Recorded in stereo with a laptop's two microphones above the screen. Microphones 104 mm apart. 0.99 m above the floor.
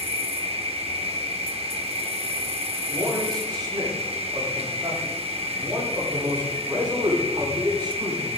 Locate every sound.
0.0 s an insect: 75° right (ahead or behind), 1.4 m
2.9 s a man speaking: 40° right (ahead or behind), 6 m